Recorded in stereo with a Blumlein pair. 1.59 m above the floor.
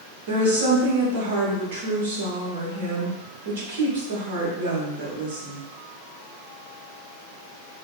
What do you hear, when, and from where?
0.3 s a woman speaking: 55° right, 1.0 m